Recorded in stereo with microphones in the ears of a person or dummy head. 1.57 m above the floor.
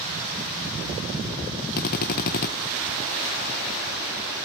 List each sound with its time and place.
1.8 s a drill: 55° left (ahead or behind), 1.2 m